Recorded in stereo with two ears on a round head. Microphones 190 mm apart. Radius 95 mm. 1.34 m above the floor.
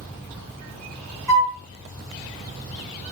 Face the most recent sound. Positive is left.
turn(degrees=-15)  # may be behind; listen again after turning